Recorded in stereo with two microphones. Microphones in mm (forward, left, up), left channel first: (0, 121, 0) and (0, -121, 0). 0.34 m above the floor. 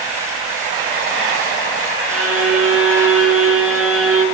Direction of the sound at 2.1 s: 70° right (ahead or behind).